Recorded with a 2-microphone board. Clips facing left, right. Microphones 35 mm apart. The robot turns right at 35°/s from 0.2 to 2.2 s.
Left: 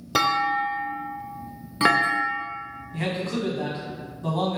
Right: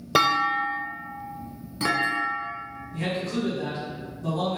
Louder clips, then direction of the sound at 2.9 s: Left 1 dB; 35° left (ahead or behind).